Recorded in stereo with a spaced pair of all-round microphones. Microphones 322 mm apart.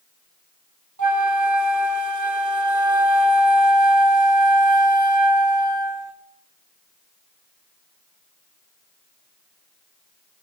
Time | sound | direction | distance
1.0 | a flute | 75° right (ahead or behind) | 1.0 m